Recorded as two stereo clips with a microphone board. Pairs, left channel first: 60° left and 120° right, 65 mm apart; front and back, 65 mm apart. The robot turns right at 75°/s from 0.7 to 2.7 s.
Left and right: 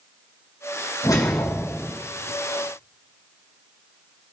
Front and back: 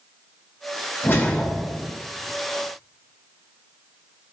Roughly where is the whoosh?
Ahead left.